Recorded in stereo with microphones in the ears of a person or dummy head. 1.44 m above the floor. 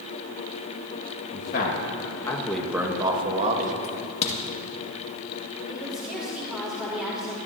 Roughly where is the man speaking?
Left.